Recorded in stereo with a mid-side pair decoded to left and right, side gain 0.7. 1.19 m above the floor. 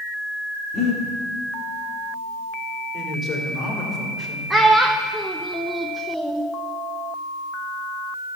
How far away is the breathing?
About 3 m.